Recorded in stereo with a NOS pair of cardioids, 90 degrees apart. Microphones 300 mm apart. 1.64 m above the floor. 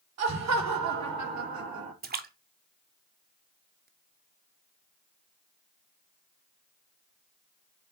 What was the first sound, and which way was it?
Laughter, 60° right.